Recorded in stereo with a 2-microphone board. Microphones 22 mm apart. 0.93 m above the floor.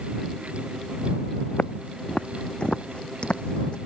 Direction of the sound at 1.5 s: 45° left (ahead or behind).